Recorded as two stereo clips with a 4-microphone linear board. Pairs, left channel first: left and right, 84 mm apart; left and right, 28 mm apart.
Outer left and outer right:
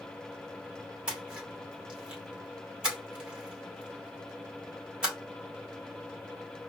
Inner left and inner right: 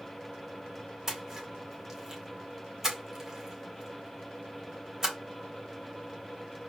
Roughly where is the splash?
Centre.